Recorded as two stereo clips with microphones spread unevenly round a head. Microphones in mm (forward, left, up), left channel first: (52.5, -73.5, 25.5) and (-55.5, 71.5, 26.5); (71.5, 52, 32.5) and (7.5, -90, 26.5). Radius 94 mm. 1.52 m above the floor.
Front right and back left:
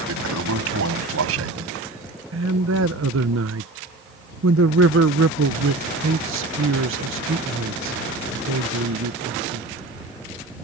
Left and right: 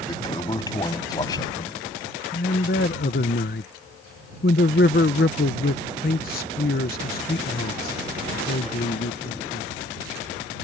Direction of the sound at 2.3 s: 110° left.